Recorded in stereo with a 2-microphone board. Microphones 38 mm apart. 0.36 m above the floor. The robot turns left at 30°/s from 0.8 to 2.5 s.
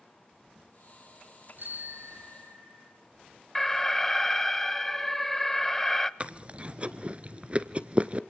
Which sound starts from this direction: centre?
An alarm, at 3.5 s.